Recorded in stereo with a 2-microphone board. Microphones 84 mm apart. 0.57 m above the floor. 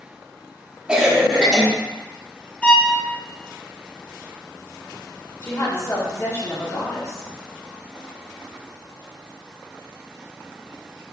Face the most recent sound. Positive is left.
turn(degrees=30)  # may be behind; listen again after turning